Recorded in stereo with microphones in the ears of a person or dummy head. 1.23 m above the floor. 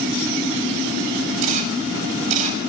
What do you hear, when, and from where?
1.4 s a camera shutter: 45° right (ahead or behind), 7 m